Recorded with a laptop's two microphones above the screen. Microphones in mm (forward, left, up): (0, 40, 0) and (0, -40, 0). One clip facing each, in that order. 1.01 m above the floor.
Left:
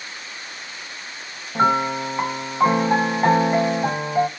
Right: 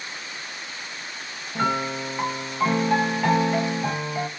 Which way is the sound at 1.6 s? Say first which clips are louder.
Left 6 dB; 30° left (ahead or behind).